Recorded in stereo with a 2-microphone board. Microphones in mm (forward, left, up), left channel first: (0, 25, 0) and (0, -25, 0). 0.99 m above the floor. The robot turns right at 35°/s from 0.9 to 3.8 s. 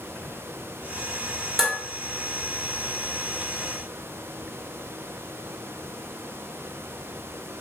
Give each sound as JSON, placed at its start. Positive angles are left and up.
{"t": 1.6, "sound": "dishes clattering", "side_deg": -5, "distance_m": 1.6}